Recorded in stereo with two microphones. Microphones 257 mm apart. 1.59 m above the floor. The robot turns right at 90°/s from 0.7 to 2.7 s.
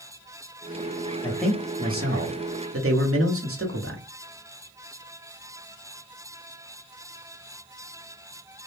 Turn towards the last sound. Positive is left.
turn(degrees=-70)